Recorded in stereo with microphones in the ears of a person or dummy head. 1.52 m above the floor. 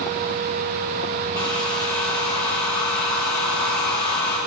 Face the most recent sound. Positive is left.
turn(degrees=20)  # may be behind; listen again after turning